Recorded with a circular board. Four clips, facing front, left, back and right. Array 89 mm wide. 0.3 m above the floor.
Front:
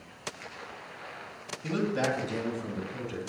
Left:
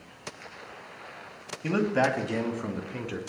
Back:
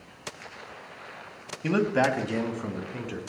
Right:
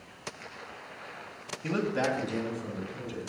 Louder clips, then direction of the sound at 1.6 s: Left 4 dB, back 5 dB; 160° left.